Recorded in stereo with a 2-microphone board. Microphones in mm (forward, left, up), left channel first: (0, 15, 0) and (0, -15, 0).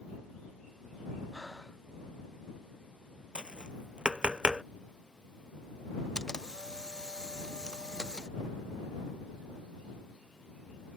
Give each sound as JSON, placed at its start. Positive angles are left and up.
{"t": 1.3, "sound": "breathing", "side_deg": 5}
{"t": 3.4, "sound": "tapping", "side_deg": -30}
{"t": 6.2, "sound": "a camera shutter", "side_deg": 20}